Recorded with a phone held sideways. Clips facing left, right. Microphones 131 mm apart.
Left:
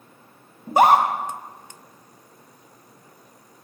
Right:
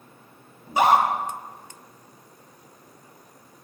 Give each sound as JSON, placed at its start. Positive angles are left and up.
{"t": 0.7, "sound": "a scream", "side_deg": 50, "distance_m": 1.0}